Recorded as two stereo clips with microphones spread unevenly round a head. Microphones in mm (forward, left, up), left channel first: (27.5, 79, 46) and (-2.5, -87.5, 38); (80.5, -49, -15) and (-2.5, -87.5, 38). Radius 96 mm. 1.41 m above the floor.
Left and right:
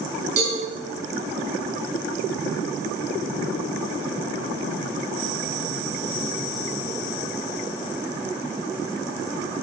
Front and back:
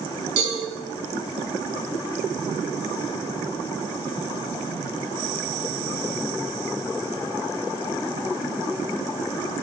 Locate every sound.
0.4 s a cowbell: 135° right, 7 m